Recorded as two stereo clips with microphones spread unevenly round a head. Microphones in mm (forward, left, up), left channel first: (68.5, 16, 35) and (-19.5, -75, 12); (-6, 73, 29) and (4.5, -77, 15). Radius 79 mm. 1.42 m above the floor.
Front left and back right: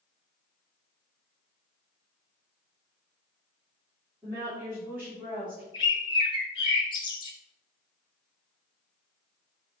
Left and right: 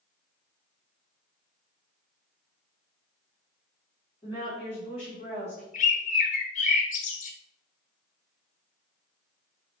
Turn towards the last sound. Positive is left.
turn(degrees=85)